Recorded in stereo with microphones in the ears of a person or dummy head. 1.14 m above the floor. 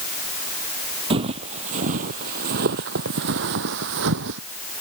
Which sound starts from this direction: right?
Footsteps, at 1.1 s.